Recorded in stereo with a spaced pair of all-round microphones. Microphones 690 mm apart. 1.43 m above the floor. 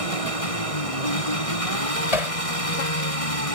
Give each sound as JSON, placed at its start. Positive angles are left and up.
{"t": 0.0, "sound": "an engine running", "side_deg": 50}
{"t": 2.1, "sound": "hammering", "side_deg": 55}